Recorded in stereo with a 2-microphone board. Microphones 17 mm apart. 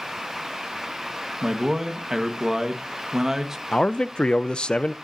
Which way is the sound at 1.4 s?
35° right (ahead or behind).